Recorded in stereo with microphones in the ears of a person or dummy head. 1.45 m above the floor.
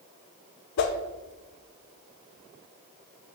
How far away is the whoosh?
About 0.8 m.